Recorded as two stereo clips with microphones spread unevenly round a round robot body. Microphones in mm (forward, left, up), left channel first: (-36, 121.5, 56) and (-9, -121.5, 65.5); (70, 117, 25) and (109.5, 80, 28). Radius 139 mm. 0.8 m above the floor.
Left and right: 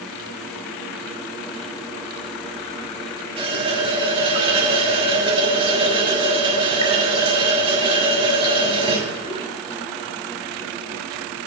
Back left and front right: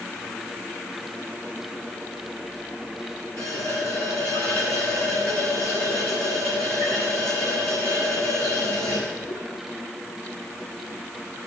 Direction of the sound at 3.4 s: 155° right.